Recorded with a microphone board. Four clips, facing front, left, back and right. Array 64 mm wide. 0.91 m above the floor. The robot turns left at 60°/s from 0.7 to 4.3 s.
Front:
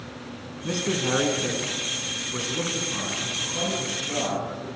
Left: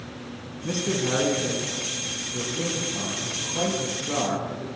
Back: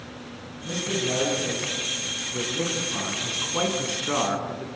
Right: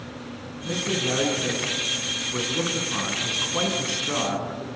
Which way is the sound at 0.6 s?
40° left.